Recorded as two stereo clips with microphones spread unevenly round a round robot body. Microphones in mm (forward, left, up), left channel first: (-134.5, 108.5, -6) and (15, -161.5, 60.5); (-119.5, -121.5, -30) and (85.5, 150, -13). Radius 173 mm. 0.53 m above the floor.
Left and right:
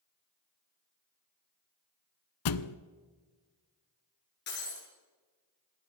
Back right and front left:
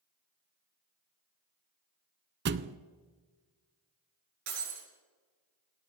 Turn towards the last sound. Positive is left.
turn(degrees=60)